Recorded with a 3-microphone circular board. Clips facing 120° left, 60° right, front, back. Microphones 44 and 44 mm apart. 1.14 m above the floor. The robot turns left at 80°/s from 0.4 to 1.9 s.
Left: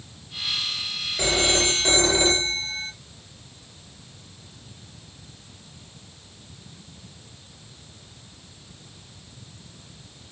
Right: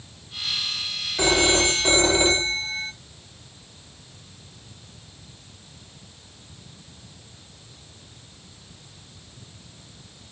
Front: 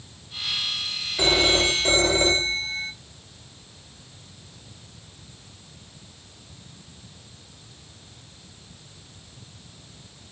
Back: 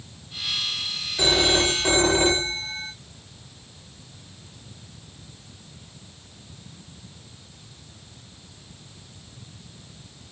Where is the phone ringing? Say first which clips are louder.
Right 3 dB, even; 80° right, 1.4 m; by 2.9 s 135° right, 1.4 m.